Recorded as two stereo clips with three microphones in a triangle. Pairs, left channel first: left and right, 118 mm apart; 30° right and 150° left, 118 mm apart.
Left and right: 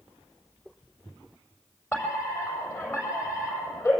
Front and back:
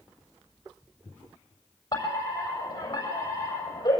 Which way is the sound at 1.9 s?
20° left.